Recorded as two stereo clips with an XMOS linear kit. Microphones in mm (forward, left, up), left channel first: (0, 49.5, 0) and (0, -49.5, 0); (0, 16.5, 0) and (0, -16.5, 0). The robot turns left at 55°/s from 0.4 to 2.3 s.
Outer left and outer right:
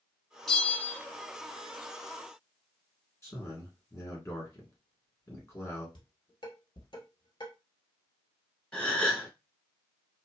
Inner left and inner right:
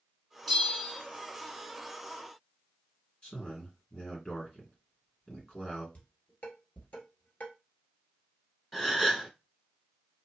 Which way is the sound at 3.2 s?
30° left (ahead or behind).